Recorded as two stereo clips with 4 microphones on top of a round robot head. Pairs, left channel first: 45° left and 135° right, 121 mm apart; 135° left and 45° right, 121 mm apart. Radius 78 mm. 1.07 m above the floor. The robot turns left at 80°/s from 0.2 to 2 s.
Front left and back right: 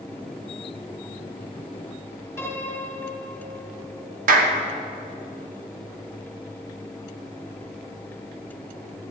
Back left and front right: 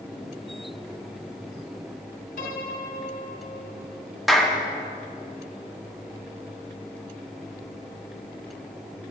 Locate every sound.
2.4 s a piano: 125° left, 2.5 m
4.3 s a clap: 135° right, 1.0 m